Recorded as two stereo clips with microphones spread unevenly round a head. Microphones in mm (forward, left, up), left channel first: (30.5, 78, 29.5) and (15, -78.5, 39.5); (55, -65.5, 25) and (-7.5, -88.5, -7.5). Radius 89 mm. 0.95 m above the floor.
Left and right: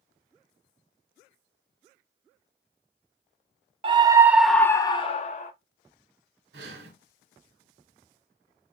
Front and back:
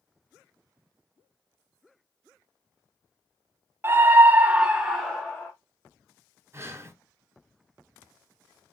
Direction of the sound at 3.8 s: 150° right.